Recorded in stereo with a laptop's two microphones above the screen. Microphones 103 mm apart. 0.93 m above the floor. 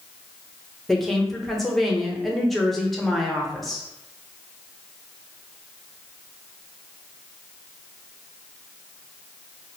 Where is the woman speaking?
Centre (ahead or behind), 0.6 m.